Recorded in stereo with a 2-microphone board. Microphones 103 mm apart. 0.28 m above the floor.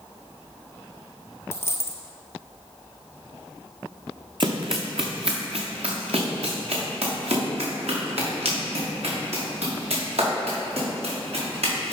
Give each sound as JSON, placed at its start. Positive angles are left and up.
{"t": 1.5, "sound": "a dropped coin", "side_deg": 25, "distance_m": 0.8}
{"t": 4.4, "sound": "running footsteps", "side_deg": -55, "distance_m": 0.9}